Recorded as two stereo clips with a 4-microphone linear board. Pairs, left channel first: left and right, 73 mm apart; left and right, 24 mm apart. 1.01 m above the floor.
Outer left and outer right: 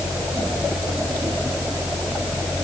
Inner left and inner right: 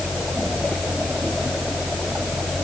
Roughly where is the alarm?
I don't hear an alarm.